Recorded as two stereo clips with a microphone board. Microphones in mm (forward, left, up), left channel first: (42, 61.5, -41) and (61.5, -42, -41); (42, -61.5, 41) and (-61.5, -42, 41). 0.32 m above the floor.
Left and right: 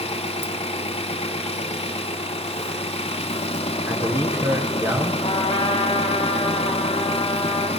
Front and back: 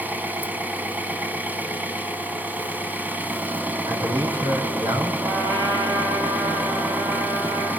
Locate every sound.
0.0 s an engine running: 95° left, 0.8 m
3.9 s a man speaking: 145° right, 3.5 m
5.2 s a trumpet: 130° left, 5 m